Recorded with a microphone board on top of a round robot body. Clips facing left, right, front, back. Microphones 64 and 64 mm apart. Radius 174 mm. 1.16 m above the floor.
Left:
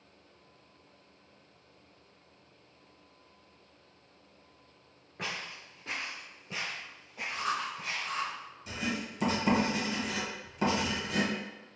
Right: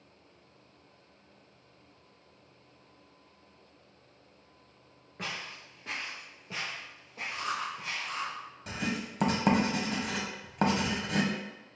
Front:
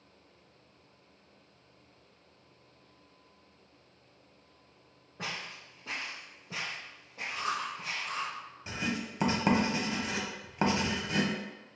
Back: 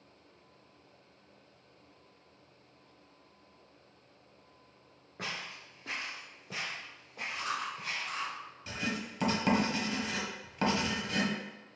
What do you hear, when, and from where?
5.2 s footsteps: straight behind, 1.2 m; by 8.2 s 150° right, 2.5 m
7.3 s chewing: 20° left, 1.0 m
8.7 s writing: 65° right, 1.2 m